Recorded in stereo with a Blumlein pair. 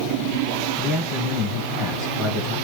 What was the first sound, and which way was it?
A man speaking, 10° right.